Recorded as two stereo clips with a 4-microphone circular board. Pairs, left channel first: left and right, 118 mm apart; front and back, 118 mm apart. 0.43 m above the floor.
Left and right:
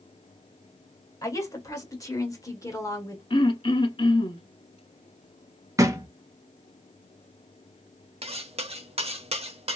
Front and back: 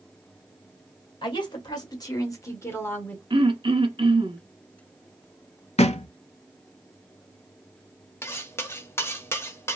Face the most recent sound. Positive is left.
turn(degrees=-65)